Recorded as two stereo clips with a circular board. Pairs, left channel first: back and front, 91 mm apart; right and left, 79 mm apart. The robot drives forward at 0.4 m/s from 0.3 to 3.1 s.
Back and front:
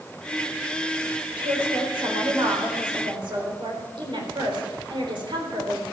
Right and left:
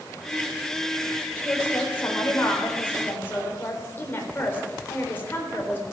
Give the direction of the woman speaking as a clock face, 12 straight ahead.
1 o'clock.